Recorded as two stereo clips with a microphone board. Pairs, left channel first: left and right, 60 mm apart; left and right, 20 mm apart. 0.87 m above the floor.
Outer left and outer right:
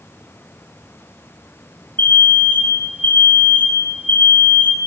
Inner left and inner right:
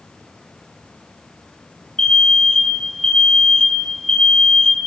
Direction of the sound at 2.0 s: 35° left (ahead or behind).